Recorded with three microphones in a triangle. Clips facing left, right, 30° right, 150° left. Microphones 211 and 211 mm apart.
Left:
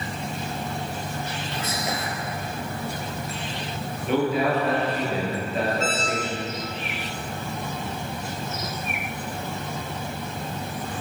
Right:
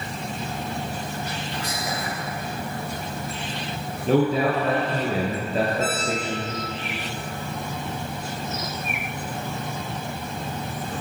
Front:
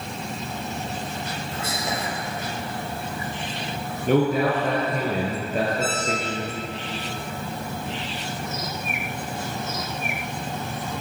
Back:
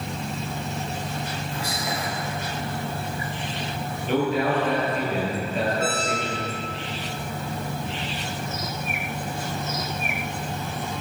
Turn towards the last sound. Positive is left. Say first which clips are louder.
# right 1 dB, even
turn(degrees=35)